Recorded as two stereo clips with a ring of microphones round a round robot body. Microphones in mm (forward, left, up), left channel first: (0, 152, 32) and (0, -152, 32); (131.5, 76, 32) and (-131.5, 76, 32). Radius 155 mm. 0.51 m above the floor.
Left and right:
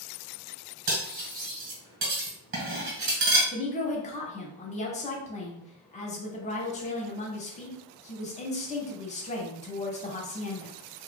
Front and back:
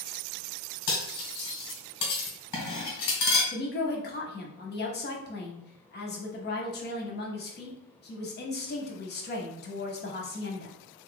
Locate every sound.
0.9 s cutlery clinking: 40° right, 1.9 m
3.5 s a woman speaking: 30° left, 0.9 m